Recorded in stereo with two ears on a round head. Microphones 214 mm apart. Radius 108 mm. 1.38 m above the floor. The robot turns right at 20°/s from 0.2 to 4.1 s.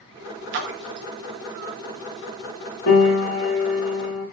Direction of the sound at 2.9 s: 45° left (ahead or behind).